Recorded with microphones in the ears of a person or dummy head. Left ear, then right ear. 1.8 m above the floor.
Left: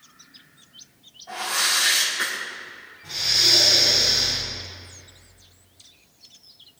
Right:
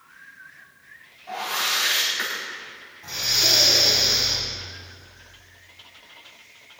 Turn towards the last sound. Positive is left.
turn(degrees=-45)  # may be behind; listen again after turning